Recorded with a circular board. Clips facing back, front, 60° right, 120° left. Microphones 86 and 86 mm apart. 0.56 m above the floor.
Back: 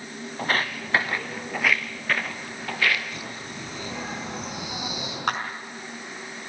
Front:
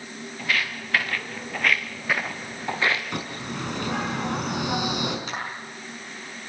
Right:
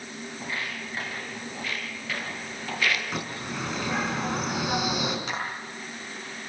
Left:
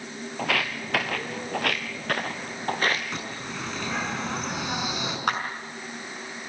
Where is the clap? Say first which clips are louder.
Back 6 dB, left 6 dB; 150° left, 5.5 m.